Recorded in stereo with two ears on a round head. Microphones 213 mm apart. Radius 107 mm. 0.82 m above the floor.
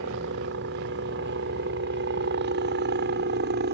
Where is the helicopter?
50° right (ahead or behind); by 3.7 s 45° right (ahead or behind).